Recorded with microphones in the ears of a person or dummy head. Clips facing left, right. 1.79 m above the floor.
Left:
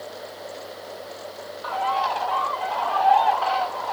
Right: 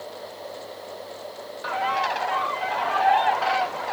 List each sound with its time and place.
1.6 s a bird: 30° right (ahead or behind), 0.7 m